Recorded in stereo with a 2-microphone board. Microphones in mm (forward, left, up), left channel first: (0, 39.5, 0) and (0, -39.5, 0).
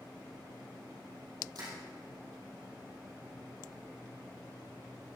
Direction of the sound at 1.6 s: 55° right (ahead or behind).